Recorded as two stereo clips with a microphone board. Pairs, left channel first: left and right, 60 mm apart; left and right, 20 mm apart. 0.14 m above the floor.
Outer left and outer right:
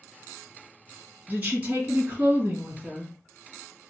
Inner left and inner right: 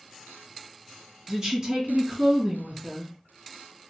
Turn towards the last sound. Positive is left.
turn(degrees=-20)  # may be behind; listen again after turning